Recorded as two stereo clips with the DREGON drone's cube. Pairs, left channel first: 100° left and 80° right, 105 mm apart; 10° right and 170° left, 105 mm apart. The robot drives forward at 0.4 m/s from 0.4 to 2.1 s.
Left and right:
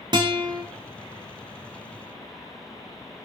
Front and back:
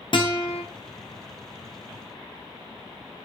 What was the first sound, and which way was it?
A guitar, 40° right.